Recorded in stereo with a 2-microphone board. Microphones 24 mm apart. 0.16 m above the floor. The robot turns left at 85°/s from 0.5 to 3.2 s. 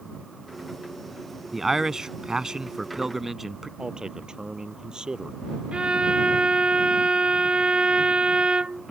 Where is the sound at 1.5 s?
5° right (ahead or behind); by 3.7 s 10° right (ahead or behind).